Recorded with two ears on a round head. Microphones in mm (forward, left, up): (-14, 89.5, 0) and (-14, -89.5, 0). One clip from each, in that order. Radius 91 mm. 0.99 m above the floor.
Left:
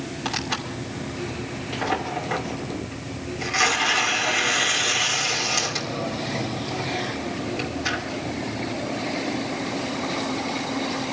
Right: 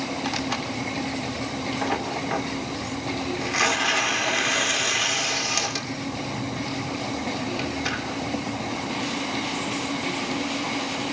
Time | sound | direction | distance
0.2 | tearing paper | 10° right (ahead or behind) | 3 m